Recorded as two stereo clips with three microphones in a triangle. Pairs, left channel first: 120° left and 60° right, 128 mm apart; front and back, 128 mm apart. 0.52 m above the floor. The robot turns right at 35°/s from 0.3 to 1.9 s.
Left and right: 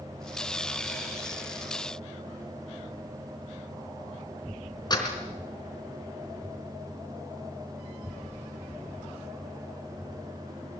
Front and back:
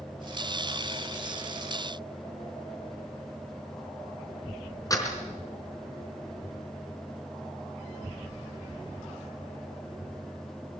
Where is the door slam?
65° left, 4 m.